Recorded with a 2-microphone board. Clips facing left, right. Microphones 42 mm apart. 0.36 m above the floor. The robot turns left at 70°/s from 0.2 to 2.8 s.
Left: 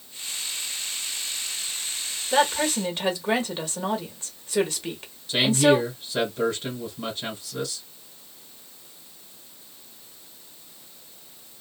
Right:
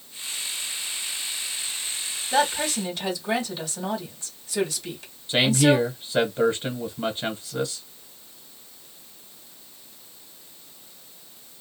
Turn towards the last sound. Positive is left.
turn(degrees=-25)  # may be behind; listen again after turning